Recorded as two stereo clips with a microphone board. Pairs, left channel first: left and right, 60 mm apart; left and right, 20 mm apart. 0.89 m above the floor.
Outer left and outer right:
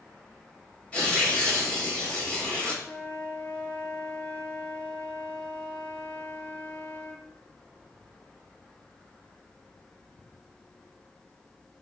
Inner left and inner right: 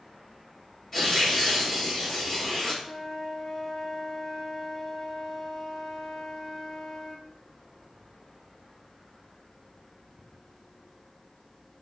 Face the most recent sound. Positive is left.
turn(degrees=25)  # may be behind; listen again after turning